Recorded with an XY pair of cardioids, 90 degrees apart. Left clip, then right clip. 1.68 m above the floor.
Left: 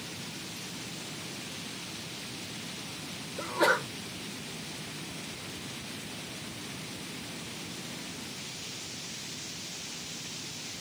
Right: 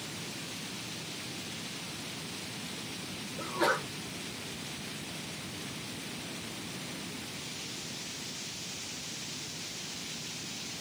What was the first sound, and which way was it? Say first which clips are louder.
A sneeze: left 4 dB; 40° left.